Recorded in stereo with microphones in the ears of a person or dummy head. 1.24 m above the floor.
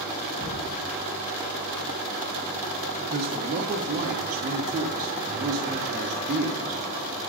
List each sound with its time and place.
0.4 s knocking: 50° left (ahead or behind), 4 m
3.0 s a man speaking: 40° right (ahead or behind), 1.0 m